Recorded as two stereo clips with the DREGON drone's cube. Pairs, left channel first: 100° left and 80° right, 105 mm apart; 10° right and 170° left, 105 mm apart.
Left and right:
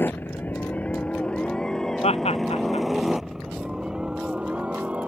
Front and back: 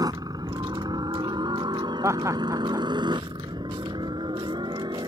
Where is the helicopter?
160° left; by 5.1 s 155° right.